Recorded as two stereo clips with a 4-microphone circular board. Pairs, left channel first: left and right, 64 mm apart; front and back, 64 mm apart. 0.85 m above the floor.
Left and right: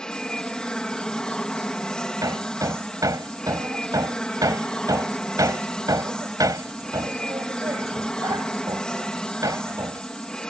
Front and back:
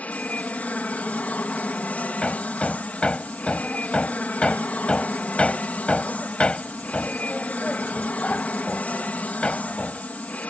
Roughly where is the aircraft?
Ahead left.